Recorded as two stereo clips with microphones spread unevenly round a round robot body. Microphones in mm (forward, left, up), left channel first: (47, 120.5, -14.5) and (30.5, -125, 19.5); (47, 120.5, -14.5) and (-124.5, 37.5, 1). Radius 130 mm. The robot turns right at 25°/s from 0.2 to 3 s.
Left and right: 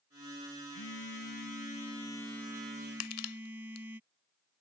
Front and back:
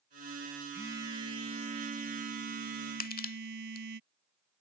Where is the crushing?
65° left.